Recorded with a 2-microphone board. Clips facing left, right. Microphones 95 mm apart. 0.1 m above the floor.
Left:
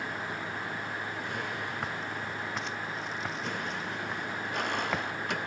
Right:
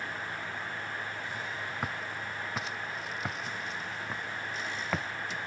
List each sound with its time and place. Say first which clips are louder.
0.0 s a vehicle: left 2 dB; 65° left (ahead or behind)
1.8 s footsteps: left 1 dB; 5° right (ahead or behind); by 5.1 s 5° left (ahead or behind)